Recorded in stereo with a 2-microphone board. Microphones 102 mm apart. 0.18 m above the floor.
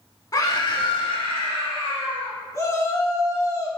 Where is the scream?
35° left (ahead or behind), 1.4 m; by 2.4 s 60° left (ahead or behind), 4 m.